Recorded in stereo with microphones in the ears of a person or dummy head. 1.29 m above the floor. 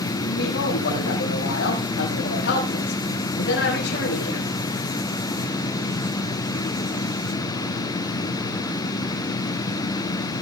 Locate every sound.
0.2 s a man speaking: 65° left (ahead or behind), 7.5 m